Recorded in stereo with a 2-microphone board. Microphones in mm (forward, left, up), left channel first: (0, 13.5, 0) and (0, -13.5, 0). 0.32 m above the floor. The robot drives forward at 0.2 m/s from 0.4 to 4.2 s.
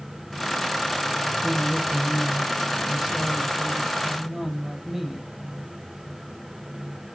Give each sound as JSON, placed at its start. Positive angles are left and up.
{"t": 1.4, "sound": "a woman speaking", "side_deg": -20, "distance_m": 0.9}